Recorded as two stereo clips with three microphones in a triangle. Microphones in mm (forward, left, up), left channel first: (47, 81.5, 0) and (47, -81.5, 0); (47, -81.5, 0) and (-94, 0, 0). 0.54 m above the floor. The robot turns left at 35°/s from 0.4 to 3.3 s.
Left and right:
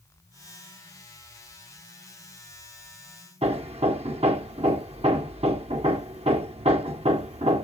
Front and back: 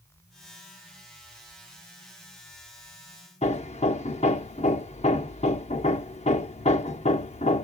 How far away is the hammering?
About 0.8 m.